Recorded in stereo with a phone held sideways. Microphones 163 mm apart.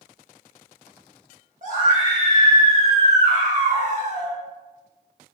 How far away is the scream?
About 1.6 m.